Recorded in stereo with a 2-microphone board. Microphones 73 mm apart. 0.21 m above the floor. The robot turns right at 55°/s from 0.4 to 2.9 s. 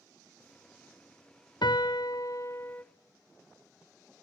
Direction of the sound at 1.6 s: 90° left.